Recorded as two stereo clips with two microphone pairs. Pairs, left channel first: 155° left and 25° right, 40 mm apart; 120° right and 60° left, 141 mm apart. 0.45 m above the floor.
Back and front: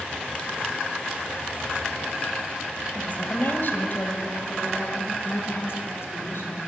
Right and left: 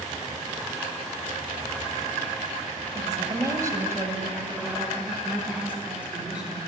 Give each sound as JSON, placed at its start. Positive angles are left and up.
{"t": 3.0, "sound": "a woman speaking", "azimuth_deg": 115, "distance_m": 1.7}